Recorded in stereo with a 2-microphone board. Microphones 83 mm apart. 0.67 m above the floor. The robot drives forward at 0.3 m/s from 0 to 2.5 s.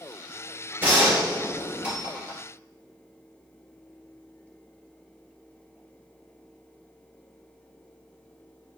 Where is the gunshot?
20° right (ahead or behind), 2 m.